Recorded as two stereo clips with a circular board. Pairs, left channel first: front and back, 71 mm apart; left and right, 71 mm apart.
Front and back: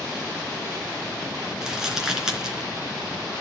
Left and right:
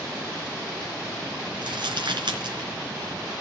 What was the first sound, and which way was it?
Crumpling, 95° right.